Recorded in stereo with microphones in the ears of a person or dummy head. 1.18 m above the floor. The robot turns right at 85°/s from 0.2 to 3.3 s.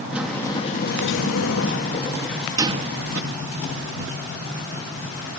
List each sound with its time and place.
0.1 s a sliding door: 5° right; by 3.2 s 110° right